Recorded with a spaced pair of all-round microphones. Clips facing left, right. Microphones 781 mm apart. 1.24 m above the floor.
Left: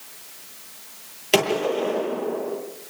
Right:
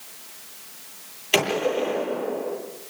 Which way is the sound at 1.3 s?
65° left (ahead or behind).